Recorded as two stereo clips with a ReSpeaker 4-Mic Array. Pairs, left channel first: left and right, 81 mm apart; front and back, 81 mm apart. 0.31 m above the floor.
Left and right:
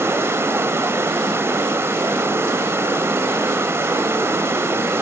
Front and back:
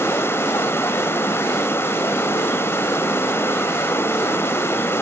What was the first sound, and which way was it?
Running water, 45° right.